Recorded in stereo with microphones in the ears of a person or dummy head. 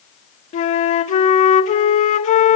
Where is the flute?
30° left (ahead or behind), 0.8 m.